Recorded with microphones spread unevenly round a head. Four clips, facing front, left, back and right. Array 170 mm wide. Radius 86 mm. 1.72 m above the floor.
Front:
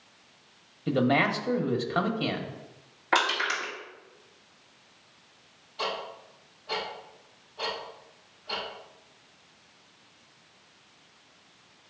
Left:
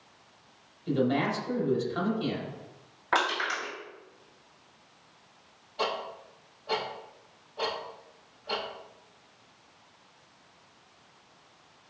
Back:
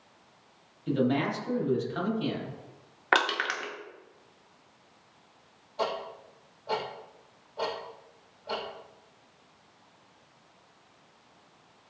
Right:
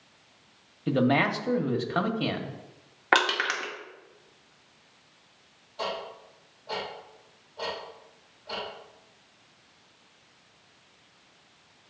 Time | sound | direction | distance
0.9 | a man speaking | 55° right | 1.5 m
3.1 | crushing | 115° right | 2 m
5.8 | ticking | 175° left | 4 m